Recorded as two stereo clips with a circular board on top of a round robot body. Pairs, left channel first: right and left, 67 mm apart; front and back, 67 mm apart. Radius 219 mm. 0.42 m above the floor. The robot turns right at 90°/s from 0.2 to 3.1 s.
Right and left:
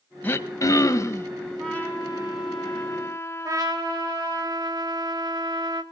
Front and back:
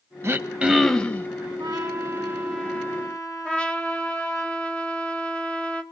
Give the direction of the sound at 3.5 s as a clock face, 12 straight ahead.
10 o'clock.